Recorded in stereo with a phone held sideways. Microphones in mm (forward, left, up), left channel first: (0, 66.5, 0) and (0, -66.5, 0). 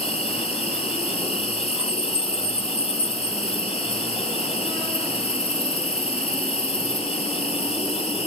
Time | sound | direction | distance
0.0 | an insect | 45° left (ahead or behind) | 1.9 m